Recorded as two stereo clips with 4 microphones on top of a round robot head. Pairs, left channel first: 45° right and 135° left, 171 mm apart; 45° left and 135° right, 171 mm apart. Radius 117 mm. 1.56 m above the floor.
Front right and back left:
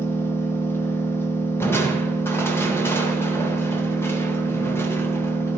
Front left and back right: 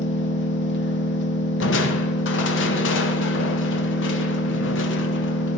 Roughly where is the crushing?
Ahead left.